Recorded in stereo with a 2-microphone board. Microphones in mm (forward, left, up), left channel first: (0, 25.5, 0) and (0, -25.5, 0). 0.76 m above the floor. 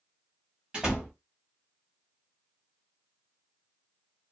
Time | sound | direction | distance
0.7 | a door slam | 20° right (ahead or behind) | 1.4 m